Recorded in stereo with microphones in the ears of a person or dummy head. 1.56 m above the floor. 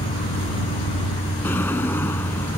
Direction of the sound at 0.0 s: 30° left (ahead or behind).